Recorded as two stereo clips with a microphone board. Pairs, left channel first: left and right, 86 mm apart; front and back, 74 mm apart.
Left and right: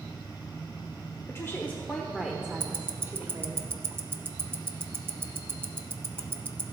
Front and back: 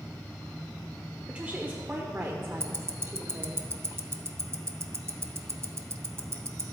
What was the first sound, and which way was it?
A woman speaking, 115° left.